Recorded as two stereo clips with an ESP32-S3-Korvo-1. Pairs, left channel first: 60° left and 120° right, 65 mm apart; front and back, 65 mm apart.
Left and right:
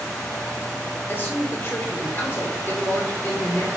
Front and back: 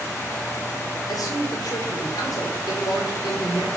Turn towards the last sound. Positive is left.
turn(degrees=5)